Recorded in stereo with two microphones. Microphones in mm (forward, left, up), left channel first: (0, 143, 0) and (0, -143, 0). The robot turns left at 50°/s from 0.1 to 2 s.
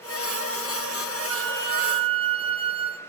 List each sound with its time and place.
1.3 s a flute: 125° right, 1.4 m; by 3.0 s 160° right, 1.4 m